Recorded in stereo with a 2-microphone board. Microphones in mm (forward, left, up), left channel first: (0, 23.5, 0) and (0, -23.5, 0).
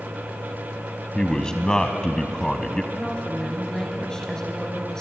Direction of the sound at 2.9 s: 15° left (ahead or behind).